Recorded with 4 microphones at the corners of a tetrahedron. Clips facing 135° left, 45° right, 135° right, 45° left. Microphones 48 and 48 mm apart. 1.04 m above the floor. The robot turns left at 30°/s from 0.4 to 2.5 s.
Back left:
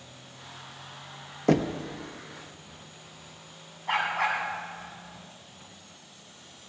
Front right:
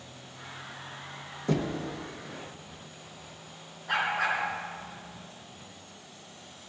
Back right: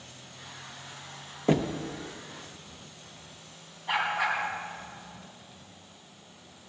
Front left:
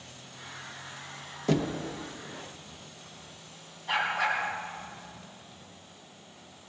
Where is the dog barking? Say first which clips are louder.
Back left 1 dB, even; 150° left, 3.5 m.